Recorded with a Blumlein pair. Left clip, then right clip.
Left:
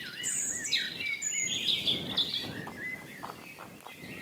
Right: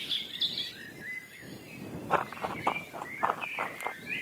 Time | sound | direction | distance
2.1 | running footsteps | 40° right | ?